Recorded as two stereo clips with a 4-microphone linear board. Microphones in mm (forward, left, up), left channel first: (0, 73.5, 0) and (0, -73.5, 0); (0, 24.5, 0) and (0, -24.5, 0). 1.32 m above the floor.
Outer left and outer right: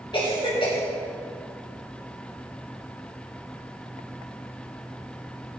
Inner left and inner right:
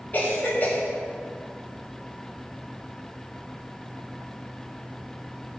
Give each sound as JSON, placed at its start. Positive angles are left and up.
{"t": 0.1, "sound": "a cough", "side_deg": 30, "distance_m": 4.0}